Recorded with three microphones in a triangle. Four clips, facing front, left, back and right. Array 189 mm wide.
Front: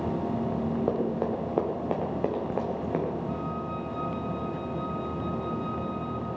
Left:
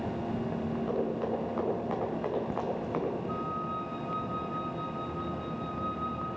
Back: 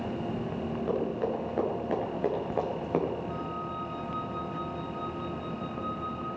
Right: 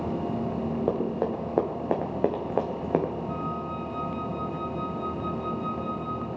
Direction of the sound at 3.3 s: 80° right.